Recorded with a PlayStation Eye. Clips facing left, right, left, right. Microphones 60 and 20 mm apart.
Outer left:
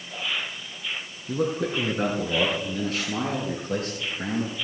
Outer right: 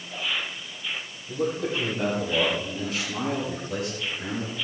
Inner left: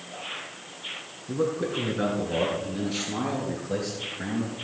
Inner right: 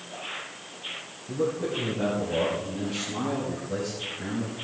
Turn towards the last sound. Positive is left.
turn(degrees=55)  # may be behind; listen again after turning